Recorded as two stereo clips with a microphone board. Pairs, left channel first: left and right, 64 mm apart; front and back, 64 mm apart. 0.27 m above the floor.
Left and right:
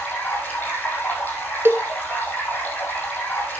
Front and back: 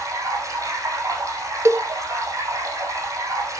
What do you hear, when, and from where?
0.0 s running water: 150° left, 5.5 m
1.6 s a cowbell: 140° right, 0.5 m